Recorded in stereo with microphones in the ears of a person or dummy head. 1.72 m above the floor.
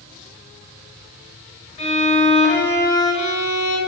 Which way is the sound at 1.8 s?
35° left (ahead or behind).